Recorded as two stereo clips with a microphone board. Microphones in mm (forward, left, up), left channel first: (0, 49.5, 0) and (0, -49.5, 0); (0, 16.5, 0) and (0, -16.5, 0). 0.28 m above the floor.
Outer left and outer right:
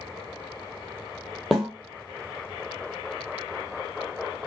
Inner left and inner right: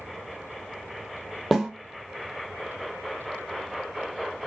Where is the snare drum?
Centre (ahead or behind), 1.2 m.